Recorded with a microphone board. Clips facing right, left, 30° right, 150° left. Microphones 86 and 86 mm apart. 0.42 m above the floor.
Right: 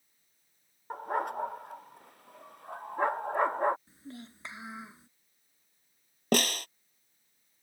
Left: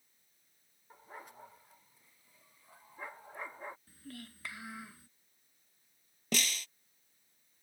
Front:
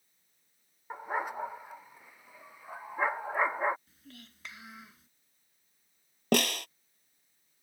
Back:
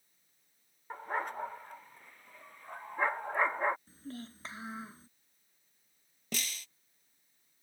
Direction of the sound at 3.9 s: 155° right.